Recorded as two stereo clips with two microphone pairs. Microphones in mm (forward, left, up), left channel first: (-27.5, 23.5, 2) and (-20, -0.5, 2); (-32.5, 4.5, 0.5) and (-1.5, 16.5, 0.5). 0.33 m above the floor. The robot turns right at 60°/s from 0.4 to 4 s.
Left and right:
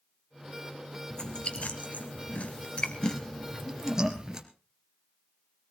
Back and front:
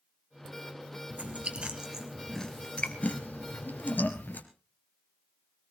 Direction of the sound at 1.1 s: 45° left.